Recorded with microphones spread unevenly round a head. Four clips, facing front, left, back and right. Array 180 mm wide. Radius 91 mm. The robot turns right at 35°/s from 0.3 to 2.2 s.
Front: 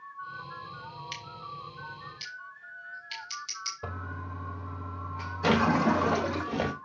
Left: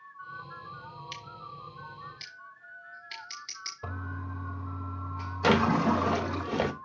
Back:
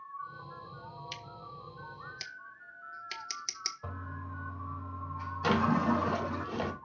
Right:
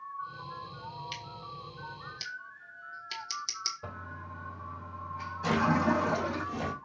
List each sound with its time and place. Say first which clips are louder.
1.1 s scissors: right 1 dB, front 5 dB; 170° left, 0.9 m; by 3.7 s 150° right, 0.9 m
3.8 s a toilet flushing: left 3 dB, front 5 dB; 10° left, 4.5 m
5.4 s a drawer: left 3 dB, front 4 dB; 55° left, 1.1 m